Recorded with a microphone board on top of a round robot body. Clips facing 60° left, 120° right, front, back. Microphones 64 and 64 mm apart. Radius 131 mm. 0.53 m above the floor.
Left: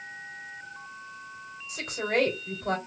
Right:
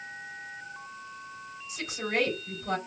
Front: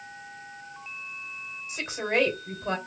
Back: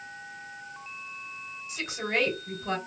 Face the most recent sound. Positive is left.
turn(degrees=65)